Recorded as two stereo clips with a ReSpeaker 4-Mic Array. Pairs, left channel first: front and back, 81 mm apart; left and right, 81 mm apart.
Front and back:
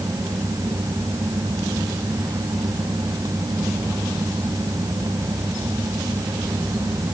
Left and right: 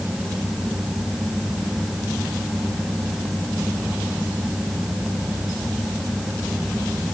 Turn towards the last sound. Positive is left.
No sound to turn to.